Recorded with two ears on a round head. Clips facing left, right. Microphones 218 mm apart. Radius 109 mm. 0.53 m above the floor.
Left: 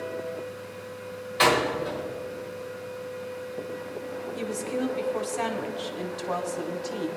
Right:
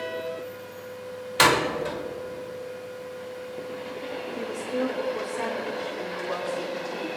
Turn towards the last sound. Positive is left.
turn(degrees=50)  # may be behind; listen again after turning